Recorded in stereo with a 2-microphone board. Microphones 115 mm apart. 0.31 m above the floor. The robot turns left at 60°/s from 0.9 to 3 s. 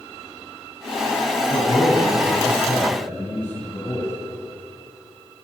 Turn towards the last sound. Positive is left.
turn(degrees=20)